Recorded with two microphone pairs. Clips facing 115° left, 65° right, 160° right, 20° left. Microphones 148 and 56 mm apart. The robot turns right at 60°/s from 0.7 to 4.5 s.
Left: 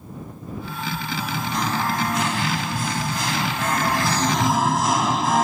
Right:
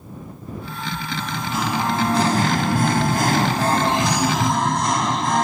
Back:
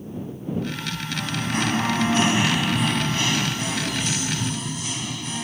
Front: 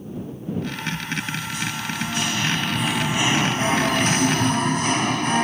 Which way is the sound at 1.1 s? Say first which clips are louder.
Right 1 dB, back 2 dB; 175° right.